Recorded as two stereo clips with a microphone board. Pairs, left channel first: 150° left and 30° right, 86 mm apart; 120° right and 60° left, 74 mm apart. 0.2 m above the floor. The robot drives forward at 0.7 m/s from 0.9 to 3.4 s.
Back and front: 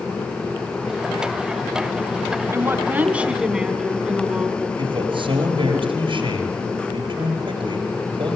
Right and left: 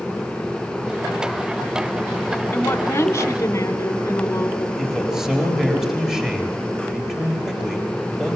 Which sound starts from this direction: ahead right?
A man speaking, at 4.8 s.